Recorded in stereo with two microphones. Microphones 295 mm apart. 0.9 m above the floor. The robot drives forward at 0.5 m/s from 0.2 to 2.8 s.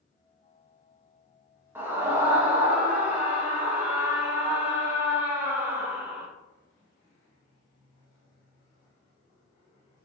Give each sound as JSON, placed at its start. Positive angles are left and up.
{"t": 1.8, "sound": "a scream", "side_deg": -10, "distance_m": 0.9}